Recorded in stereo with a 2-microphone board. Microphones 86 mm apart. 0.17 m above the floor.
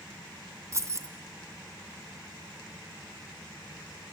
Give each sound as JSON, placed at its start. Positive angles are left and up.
{"t": 0.7, "sound": "keys jangling", "side_deg": -35, "distance_m": 1.3}